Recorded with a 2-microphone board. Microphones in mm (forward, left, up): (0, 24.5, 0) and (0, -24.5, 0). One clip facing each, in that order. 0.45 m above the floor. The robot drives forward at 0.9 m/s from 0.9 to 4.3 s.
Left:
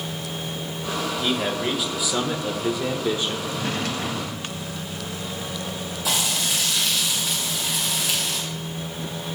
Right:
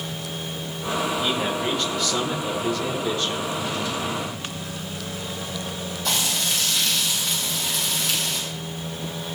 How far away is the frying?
About 4.5 m.